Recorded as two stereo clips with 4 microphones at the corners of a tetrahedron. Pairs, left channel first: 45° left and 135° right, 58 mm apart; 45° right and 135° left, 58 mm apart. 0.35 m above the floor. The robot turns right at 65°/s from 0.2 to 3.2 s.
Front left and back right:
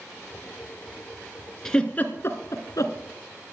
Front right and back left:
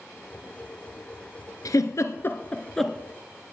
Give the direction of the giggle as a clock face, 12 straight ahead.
1 o'clock.